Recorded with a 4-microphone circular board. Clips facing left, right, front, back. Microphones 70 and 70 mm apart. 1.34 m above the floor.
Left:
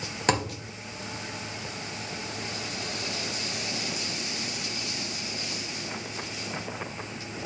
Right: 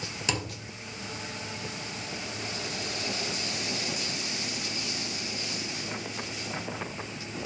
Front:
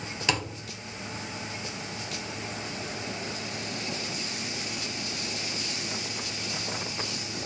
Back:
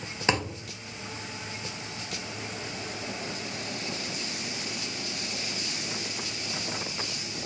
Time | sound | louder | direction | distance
0.3 | a thud | left 8 dB, back 3 dB | 125° left | 2 m